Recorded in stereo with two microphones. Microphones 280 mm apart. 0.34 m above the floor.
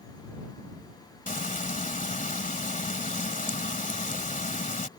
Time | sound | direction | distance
1.3 | frying | 25° left (ahead or behind) | ?